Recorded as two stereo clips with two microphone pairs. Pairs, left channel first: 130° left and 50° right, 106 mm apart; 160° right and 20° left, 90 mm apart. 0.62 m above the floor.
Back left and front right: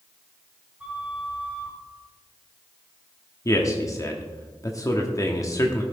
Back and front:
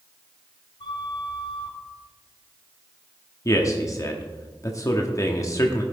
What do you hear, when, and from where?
0.8 s a flute: 130° right, 1.8 m
3.5 s a man speaking: 170° left, 1.0 m